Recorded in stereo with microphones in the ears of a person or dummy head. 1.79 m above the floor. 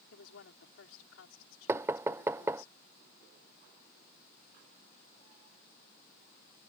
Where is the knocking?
15° right (ahead or behind).